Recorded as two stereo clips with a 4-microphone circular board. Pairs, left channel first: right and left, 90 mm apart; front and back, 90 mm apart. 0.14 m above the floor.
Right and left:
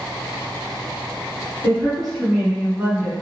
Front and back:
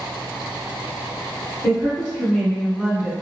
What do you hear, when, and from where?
1.6 s a woman speaking: 30° right, 1.7 m; by 3.1 s 125° left, 1.4 m